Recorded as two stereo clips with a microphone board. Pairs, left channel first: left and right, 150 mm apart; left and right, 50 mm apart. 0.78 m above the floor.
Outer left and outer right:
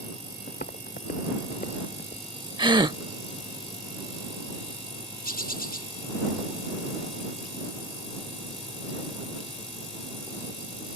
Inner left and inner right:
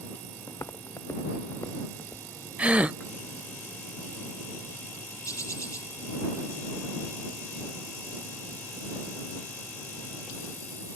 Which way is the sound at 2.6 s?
30° right (ahead or behind).